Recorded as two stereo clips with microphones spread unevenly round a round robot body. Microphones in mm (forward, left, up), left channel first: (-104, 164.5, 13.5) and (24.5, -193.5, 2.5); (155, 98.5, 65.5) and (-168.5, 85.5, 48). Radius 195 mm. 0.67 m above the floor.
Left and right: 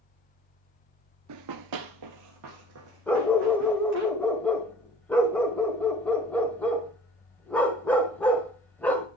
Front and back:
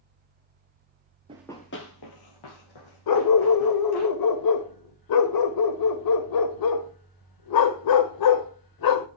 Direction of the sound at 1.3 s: 105° right.